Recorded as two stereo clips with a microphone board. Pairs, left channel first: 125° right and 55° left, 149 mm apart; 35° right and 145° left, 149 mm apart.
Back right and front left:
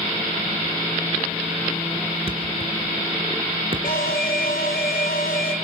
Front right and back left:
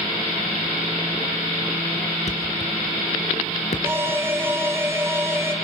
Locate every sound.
2.3 s a thud: 5° left, 3 m
3.8 s an alarm: 140° right, 2.5 m